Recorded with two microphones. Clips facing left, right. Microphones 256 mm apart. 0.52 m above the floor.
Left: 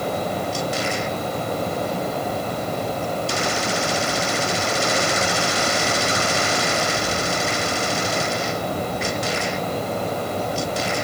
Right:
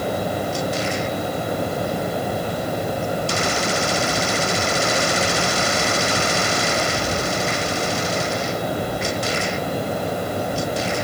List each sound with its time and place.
Only background noise.